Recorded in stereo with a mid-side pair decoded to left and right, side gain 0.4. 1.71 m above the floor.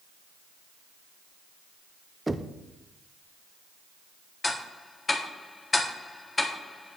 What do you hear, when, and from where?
2.3 s knocking: 15° right, 0.8 m
4.4 s ticking: 30° left, 1.8 m